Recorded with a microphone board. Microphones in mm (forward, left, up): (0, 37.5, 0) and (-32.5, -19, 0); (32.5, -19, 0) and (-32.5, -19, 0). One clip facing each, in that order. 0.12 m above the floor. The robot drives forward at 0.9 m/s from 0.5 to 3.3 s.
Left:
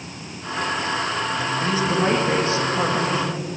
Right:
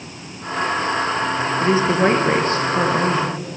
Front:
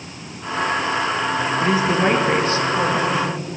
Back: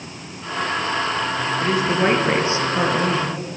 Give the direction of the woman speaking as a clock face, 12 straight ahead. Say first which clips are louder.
Right 5 dB, front 1 dB; 3 o'clock.